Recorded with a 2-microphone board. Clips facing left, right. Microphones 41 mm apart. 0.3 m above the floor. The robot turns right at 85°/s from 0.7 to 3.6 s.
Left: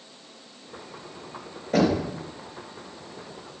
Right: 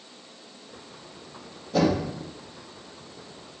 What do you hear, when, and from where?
1.7 s knocking: 70° left (ahead or behind), 4 m; by 2.1 s 75° left (ahead or behind), 4 m